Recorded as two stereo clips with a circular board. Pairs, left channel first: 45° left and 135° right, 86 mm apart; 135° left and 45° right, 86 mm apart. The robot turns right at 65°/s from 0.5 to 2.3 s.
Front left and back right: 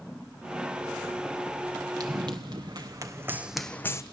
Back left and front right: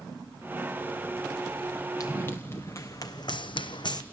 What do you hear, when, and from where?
2.0 s running footsteps: 175° right, 2.0 m; by 4.0 s 100° left, 0.9 m